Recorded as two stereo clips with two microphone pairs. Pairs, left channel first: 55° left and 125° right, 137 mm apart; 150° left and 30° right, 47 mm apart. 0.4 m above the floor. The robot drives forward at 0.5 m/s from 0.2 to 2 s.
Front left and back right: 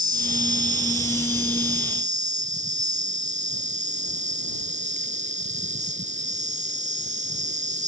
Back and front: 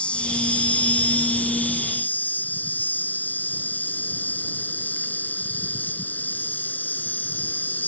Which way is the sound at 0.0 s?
145° right.